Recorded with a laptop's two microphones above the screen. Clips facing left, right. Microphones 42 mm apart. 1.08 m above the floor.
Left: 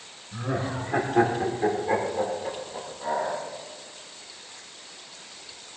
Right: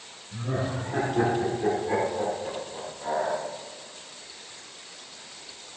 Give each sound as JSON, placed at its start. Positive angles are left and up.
{"t": 0.3, "sound": "laughter", "side_deg": 60, "distance_m": 2.5}